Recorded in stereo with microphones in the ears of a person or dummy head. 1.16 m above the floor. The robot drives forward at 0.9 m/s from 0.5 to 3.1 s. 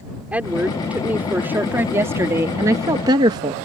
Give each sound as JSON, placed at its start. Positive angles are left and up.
{"t": 0.3, "sound": "a woman speaking", "side_deg": -10}